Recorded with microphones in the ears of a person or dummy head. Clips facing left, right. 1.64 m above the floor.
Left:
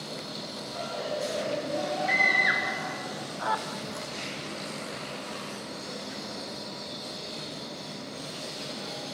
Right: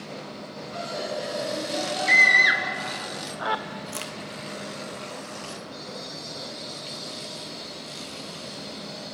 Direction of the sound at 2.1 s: 40° right (ahead or behind).